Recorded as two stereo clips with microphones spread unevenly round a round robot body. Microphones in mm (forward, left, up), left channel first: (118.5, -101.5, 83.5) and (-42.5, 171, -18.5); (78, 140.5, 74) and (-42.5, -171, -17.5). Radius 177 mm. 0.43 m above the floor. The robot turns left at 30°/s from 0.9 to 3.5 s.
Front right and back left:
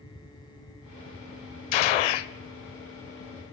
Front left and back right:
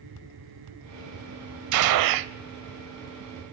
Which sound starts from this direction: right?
A gunshot, at 1.7 s.